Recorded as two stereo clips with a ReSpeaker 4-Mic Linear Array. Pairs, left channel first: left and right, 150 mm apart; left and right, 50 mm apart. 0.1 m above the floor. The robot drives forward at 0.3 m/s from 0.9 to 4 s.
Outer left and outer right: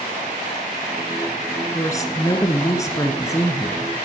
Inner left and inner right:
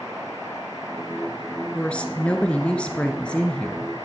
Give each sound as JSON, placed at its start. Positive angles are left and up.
{"t": 1.8, "sound": "a woman speaking", "side_deg": 20, "distance_m": 1.4}